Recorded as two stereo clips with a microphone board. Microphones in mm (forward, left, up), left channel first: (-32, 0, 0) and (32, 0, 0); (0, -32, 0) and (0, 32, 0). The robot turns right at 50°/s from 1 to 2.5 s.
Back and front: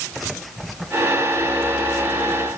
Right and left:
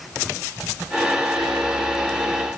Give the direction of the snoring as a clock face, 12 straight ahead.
No snoring in this recording.